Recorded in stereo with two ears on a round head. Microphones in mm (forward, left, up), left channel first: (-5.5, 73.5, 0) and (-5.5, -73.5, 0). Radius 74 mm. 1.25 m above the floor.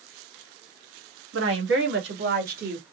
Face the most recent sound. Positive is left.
turn(degrees=-50)  # may be behind; listen again after turning